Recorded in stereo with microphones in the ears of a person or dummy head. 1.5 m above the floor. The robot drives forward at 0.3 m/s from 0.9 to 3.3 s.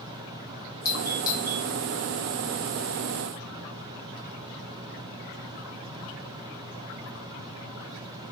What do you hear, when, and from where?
0.8 s a doorbell: 20° left (ahead or behind), 0.8 m